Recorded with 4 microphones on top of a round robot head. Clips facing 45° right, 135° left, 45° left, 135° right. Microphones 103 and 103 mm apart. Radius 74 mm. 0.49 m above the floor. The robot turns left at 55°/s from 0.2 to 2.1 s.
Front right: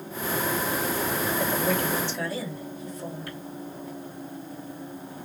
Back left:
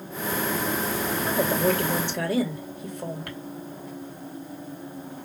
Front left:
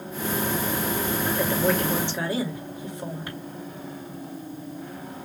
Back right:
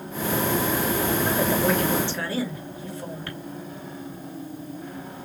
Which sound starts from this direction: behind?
A woman speaking, at 1.2 s.